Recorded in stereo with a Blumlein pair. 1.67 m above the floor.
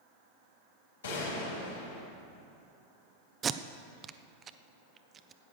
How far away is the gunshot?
About 4 m.